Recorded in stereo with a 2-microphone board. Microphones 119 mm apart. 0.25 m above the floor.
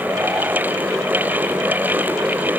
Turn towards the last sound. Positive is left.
No sound to turn to.